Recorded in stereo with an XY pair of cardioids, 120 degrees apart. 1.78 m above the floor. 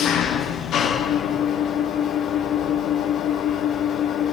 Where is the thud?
I don't hear a thud.